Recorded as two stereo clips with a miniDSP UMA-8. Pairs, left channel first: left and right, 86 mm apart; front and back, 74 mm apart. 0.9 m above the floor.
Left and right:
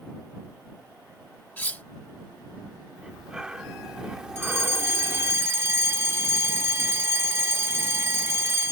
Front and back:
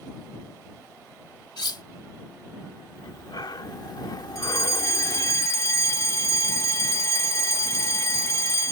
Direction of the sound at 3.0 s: 10° right.